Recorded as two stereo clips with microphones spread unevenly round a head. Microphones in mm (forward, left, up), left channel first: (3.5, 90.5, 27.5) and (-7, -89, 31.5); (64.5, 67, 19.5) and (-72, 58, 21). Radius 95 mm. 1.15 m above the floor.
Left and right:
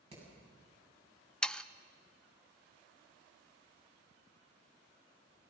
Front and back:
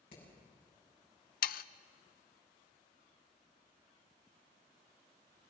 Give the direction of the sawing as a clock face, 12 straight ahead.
12 o'clock.